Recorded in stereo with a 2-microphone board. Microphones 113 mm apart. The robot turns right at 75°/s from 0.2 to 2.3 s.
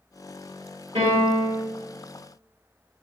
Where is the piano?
100° right, 1.7 m; by 1.6 s 50° right, 1.7 m.